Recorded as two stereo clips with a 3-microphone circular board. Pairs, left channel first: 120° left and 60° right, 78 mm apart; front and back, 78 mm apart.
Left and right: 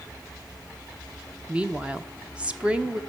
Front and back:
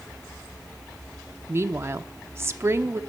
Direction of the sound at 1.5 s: 130° right.